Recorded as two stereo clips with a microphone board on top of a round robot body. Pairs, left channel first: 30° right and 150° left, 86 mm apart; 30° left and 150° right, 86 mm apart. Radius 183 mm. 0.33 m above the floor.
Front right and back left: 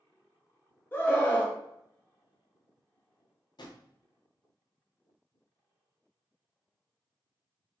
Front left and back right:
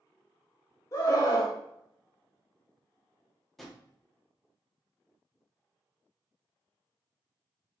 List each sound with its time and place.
0.9 s a scream: 25° left, 1.1 m
3.6 s a drawer: 60° right, 0.9 m